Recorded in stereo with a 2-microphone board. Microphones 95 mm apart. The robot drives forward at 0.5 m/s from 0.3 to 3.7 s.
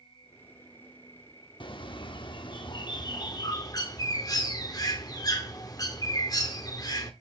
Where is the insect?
65° left (ahead or behind), 1.7 m; by 7.2 s 30° left (ahead or behind), 3 m.